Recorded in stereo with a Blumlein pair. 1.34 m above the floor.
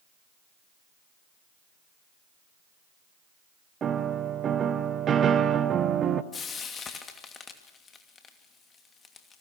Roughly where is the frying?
Ahead.